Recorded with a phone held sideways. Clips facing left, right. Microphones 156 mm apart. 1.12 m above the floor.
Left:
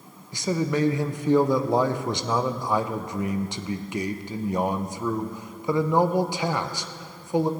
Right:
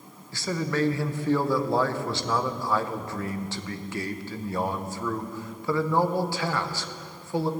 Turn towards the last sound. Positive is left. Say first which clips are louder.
# left 3 dB
turn(degrees=20)  # may be behind; listen again after turning